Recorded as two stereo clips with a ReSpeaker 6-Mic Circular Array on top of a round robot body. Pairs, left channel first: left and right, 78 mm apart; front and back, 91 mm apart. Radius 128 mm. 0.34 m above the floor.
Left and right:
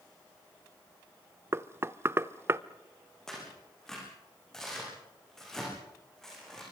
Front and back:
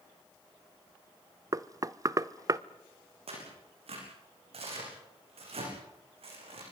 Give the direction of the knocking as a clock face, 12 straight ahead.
5 o'clock.